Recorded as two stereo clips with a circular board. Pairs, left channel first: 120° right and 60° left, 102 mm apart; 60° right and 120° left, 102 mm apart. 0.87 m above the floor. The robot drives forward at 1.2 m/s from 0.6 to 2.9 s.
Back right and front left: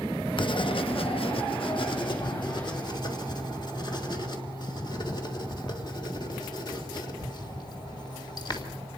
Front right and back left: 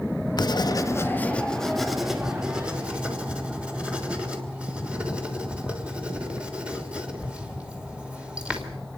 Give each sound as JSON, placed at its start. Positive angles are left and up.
{"t": 0.4, "sound": "writing", "azimuth_deg": -100, "distance_m": 1.1}